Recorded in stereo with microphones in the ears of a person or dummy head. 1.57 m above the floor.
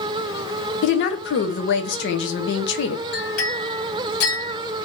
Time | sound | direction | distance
0.8 | a woman speaking | 70° left (ahead or behind) | 0.8 m
3.1 | a clink | 75° left (ahead or behind) | 2.5 m